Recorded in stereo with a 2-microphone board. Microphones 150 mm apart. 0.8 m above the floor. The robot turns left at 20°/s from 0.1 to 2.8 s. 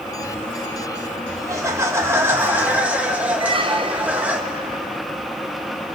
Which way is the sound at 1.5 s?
20° right (ahead or behind).